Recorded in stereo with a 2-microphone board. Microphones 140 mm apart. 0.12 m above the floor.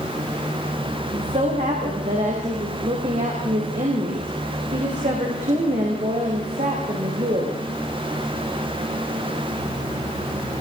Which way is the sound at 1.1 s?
55° right (ahead or behind).